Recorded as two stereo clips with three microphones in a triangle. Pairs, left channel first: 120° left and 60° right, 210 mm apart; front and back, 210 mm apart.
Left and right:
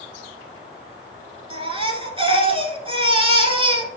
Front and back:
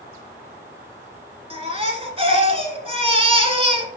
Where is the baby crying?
120° right, 1.0 m.